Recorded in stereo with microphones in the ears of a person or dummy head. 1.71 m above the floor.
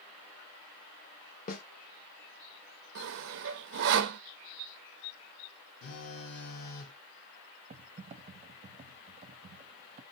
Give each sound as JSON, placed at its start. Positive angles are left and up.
{"t": 1.5, "sound": "a snare drum", "side_deg": 40, "distance_m": 0.9}
{"t": 3.0, "sound": "sawing", "side_deg": -70, "distance_m": 0.6}
{"t": 5.8, "sound": "a phone buzzing", "side_deg": 55, "distance_m": 1.2}
{"t": 7.7, "sound": "typing on a keyboard", "side_deg": -35, "distance_m": 0.7}